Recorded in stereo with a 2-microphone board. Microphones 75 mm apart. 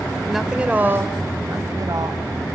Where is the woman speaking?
Centre (ahead or behind), 1.4 m; by 2.2 s 60° right (ahead or behind), 2.5 m.